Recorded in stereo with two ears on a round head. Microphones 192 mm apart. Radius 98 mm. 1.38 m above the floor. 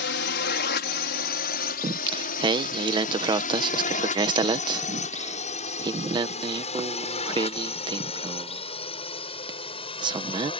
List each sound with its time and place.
0.0 s a drone: 55° left (ahead or behind); by 10.6 s 25° left (ahead or behind)
1.8 s singing: 25° right (ahead or behind)